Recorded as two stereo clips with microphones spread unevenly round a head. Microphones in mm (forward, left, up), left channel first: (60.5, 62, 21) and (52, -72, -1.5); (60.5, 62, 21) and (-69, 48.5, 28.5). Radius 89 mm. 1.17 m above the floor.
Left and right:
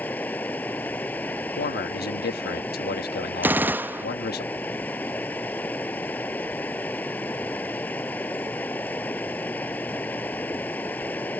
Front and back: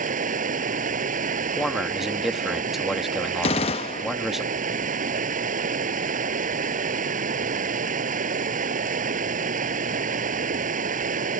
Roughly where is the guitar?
I don't hear a guitar.